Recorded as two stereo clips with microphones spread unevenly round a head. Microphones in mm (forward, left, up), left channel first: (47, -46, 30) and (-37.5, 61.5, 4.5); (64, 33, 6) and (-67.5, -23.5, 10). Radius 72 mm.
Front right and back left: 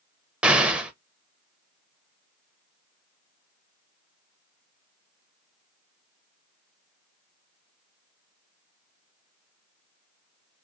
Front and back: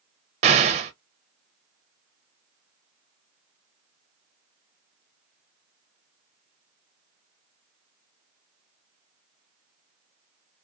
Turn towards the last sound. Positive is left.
turn(degrees=-165)